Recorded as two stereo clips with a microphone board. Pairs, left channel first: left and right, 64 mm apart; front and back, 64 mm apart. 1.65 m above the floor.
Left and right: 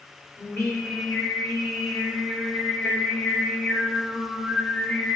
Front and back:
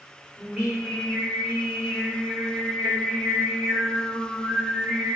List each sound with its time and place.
0.4 s singing: 110° left, 1.6 m